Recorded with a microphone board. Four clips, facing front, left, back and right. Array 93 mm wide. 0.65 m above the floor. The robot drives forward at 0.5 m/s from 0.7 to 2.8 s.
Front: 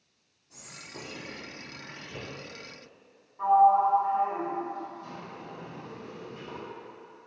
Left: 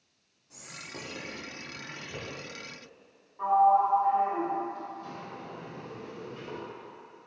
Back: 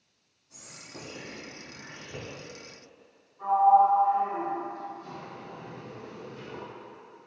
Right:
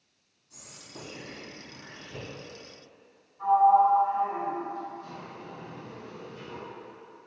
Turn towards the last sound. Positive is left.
turn(degrees=55)